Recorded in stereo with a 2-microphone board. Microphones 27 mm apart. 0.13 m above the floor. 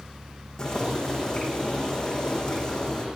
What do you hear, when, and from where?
0.6 s boiling: 20° left (ahead or behind), 9 m